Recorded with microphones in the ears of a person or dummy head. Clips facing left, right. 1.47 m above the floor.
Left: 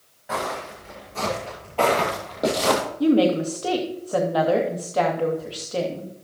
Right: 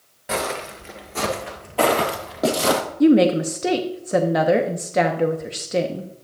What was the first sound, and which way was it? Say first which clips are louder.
Footsteps: right 3 dB; 35° right (ahead or behind).